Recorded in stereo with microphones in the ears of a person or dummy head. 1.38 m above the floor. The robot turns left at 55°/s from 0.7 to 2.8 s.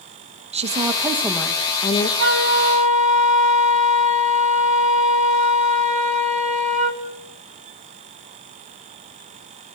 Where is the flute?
110° right, 1.8 m; by 7.0 s 145° right, 1.8 m.